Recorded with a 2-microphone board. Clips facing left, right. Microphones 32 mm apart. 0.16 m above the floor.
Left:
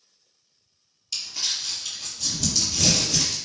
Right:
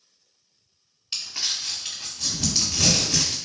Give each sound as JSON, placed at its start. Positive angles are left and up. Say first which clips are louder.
{"t": 1.1, "sound": "crumpling", "louder": "even", "side_deg": -40, "distance_m": 1.6}